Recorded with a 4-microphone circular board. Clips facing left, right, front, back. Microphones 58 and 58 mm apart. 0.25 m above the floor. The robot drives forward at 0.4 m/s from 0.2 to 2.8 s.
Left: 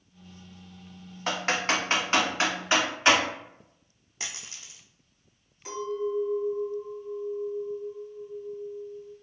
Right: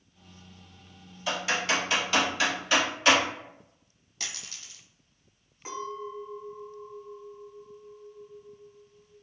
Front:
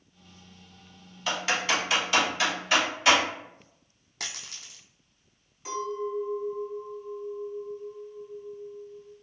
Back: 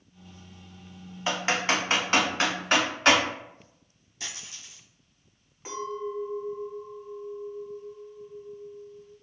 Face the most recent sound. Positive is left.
turn(degrees=-140)